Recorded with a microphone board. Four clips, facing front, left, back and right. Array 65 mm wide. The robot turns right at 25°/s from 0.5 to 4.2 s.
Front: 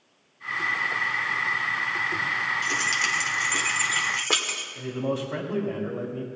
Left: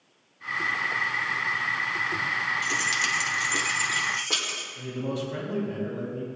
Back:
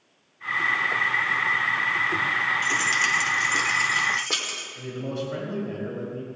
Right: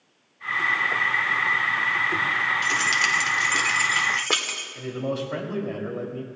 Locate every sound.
2.6 s keys jangling: 105° right, 1.1 m; by 4.7 s 65° right, 1.1 m
4.8 s a man speaking: 75° right, 2.5 m